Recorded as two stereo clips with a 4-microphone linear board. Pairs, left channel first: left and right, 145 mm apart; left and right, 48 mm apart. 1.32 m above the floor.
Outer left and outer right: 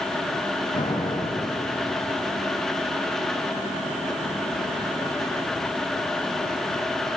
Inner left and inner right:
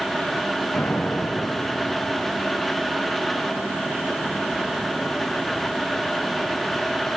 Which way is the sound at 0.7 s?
65° left (ahead or behind).